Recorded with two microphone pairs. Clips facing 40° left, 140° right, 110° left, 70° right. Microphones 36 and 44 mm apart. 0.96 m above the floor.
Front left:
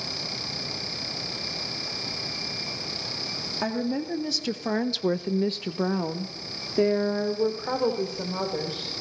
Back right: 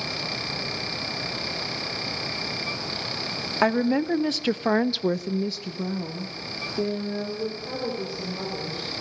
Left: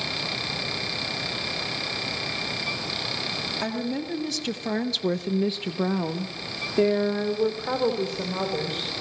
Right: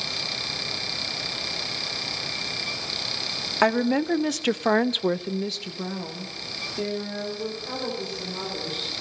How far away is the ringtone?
No ringtone in this recording.